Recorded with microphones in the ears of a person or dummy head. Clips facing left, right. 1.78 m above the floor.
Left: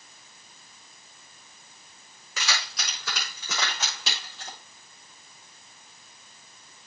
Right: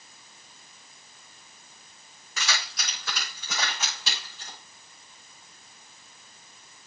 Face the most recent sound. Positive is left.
turn(degrees=60)  # may be behind; listen again after turning